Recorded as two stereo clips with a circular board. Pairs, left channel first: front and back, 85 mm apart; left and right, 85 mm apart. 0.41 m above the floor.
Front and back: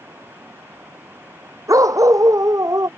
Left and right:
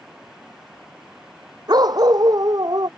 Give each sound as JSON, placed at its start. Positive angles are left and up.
{"t": 1.7, "sound": "a dog barking", "azimuth_deg": -130}